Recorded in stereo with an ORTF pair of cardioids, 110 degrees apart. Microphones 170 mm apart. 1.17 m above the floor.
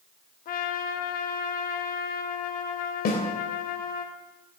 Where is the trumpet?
60° left, 1.0 m.